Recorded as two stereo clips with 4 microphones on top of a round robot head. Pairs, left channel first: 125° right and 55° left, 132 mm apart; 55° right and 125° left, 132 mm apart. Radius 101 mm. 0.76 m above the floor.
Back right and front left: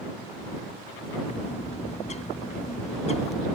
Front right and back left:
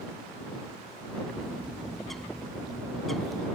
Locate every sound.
1.3 s a bird: 145° right